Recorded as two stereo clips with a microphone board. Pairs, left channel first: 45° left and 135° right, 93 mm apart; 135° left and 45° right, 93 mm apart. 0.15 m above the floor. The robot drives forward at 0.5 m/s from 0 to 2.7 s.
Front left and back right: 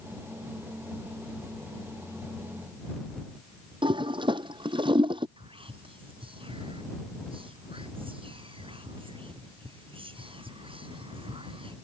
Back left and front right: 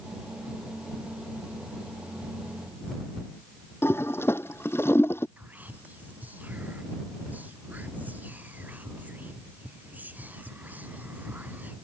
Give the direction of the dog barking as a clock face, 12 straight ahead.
No dog barking in this recording.